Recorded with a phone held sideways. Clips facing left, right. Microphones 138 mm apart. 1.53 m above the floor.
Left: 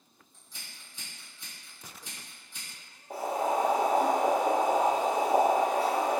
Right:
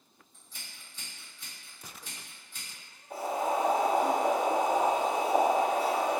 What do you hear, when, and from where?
0.3 s scissors: 10° left (ahead or behind), 1.4 m
3.1 s boiling: 40° left (ahead or behind), 0.8 m